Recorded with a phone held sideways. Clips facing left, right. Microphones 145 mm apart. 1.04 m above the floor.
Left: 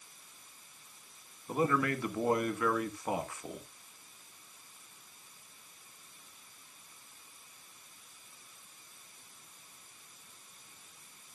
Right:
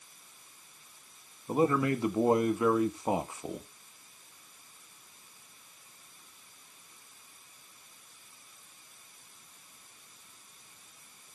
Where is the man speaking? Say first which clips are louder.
Right 4 dB; 20° right (ahead or behind), 1.5 m.